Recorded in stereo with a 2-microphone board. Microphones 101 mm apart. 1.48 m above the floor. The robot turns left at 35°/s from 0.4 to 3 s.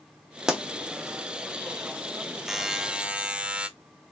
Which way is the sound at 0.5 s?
5° right (ahead or behind).